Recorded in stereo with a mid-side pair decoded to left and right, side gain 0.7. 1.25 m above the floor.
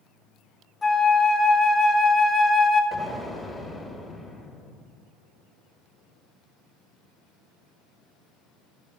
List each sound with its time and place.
0.8 s a flute: 15° left, 1.6 m
2.9 s an explosion: straight ahead, 1.9 m